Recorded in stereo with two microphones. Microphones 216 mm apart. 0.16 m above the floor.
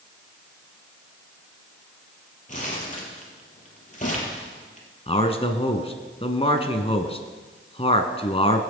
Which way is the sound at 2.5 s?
35° left (ahead or behind).